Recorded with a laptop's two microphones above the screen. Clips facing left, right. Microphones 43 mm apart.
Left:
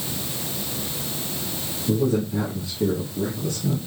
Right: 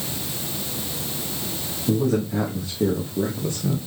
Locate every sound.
1.9 s a man speaking: 75° right (ahead or behind), 2.5 m; by 3.8 s 20° right (ahead or behind), 1.1 m